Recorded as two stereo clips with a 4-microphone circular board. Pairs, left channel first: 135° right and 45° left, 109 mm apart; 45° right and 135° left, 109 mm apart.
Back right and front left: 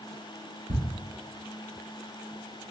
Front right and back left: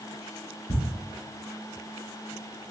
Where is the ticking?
30° left, 2 m.